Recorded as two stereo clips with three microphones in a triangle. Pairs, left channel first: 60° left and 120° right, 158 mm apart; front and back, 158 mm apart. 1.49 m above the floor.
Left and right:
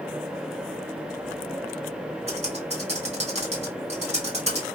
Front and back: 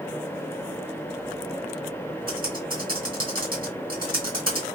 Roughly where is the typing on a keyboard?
Behind.